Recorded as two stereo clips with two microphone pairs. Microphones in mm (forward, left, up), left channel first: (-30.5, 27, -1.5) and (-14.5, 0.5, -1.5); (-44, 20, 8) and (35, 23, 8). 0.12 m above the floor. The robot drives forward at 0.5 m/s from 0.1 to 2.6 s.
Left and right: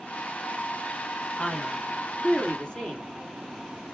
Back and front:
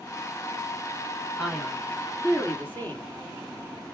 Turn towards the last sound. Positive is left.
turn(degrees=140)